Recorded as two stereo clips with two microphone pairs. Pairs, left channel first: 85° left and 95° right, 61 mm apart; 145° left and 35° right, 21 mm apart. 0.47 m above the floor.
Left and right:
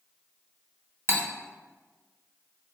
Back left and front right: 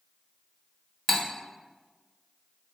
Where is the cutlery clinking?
140° right, 0.5 m.